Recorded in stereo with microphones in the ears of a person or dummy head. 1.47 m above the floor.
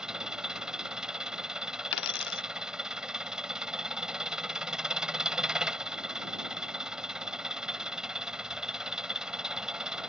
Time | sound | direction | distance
0.0 | an engine running | 5° right (ahead or behind) | ?
1.9 | a dropped coin | 65° left (ahead or behind) | ?